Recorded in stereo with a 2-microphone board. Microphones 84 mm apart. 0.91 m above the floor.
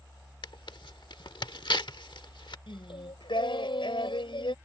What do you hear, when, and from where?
0.4 s tearing paper: 70° left (ahead or behind)
2.7 s singing: 80° left